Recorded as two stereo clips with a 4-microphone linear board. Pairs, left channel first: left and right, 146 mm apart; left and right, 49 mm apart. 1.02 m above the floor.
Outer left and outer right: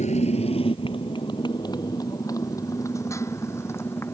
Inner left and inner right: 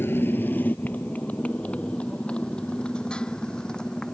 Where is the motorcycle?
55° left (ahead or behind); by 4.1 s 15° left (ahead or behind).